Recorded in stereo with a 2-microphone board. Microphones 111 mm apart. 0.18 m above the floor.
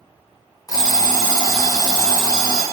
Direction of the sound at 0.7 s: 30° left (ahead or behind).